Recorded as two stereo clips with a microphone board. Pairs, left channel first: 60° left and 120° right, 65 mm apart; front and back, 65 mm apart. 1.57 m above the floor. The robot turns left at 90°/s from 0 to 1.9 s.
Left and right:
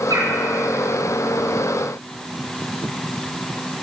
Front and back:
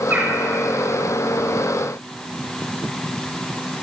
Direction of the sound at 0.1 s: 120° right.